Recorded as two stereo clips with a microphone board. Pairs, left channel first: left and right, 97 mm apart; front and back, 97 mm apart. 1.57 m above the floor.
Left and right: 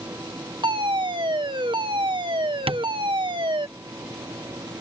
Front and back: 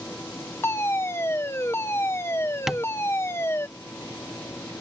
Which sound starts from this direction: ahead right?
A fire alarm, at 0.6 s.